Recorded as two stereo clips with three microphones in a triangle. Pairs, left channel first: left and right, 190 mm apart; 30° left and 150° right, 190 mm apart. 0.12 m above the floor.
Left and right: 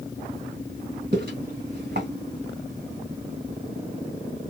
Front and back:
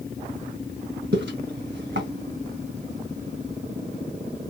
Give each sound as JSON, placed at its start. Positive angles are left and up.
{"t": 1.1, "sound": "footsteps", "azimuth_deg": -130, "distance_m": 1.6}